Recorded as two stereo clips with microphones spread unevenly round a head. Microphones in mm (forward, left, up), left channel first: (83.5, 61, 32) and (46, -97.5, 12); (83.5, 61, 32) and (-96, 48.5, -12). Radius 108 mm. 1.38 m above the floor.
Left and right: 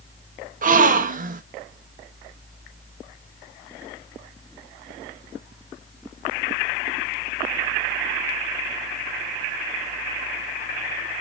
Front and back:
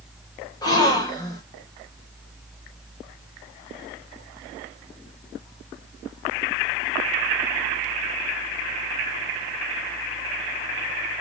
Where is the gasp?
75° right, 1.0 m.